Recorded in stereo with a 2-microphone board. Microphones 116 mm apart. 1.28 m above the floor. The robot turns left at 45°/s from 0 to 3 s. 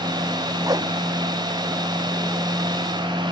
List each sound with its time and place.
0.7 s a whoosh: 30° right (ahead or behind); by 0.9 s 40° right (ahead or behind)